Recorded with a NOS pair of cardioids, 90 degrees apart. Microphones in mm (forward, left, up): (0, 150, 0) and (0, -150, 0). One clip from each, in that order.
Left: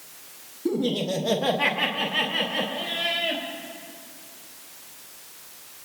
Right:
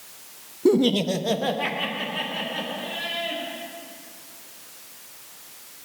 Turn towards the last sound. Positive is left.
turn(degrees=45)